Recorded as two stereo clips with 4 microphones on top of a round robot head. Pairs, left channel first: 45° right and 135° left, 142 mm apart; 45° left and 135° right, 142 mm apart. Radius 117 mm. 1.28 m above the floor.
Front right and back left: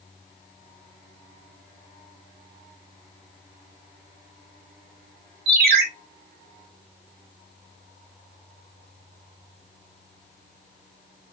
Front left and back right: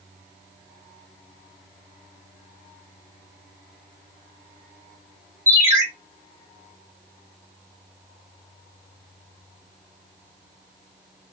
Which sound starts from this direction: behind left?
A ringtone, at 5.5 s.